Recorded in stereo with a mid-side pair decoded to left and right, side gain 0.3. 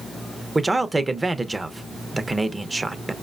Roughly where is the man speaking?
Ahead right.